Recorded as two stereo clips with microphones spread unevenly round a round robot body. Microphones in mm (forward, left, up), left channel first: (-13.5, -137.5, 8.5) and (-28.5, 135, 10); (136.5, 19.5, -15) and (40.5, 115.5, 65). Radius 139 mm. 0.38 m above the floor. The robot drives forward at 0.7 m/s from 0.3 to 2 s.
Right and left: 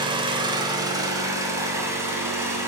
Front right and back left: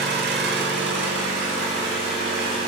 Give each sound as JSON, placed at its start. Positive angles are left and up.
{"t": 0.0, "sound": "an engine running", "azimuth_deg": 165, "distance_m": 1.0}